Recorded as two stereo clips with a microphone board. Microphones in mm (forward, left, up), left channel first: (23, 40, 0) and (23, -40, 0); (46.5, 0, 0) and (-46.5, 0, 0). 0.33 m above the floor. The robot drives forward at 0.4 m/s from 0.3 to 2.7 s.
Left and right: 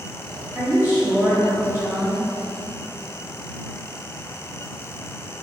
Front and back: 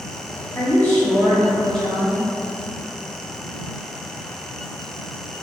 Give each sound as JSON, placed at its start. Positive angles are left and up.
{"t": 0.6, "sound": "a woman speaking", "azimuth_deg": -45, "distance_m": 1.6}